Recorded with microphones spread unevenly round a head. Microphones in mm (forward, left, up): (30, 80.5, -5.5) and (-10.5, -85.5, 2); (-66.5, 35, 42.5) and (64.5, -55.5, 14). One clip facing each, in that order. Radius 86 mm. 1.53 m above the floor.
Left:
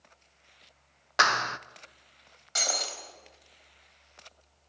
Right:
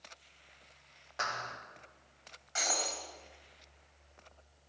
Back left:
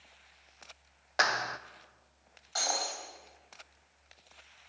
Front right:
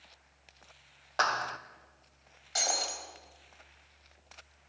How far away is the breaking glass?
About 4 m.